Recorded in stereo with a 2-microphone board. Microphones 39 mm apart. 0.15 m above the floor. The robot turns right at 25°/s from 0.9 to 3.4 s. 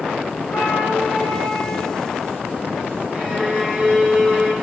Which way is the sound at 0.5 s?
25° left (ahead or behind).